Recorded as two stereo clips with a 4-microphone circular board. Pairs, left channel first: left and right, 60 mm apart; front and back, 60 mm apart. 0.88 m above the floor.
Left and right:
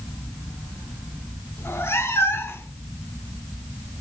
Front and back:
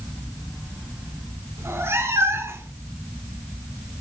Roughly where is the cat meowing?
Behind left.